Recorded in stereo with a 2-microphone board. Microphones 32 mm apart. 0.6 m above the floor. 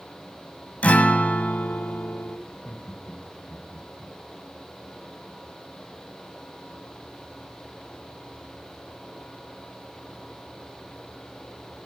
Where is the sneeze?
No sneeze in this recording.